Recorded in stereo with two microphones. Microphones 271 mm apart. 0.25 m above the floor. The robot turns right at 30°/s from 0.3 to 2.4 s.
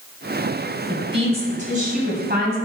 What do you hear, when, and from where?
0.9 s a woman speaking: 155° right, 2.0 m; by 2.6 s 110° right, 2.0 m